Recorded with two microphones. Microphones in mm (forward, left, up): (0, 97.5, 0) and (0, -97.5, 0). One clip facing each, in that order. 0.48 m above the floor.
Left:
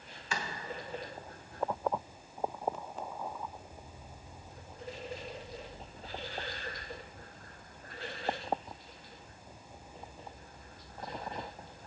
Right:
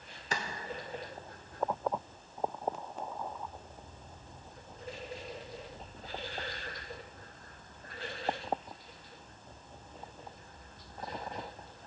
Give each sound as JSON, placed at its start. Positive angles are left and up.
{"t": 0.3, "sound": "a clap", "side_deg": -40, "distance_m": 1.3}